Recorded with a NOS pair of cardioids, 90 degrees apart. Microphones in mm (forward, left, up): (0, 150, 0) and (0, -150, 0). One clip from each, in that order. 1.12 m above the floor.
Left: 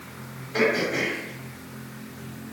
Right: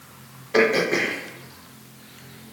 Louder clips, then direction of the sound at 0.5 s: Right 4 dB; 60° right.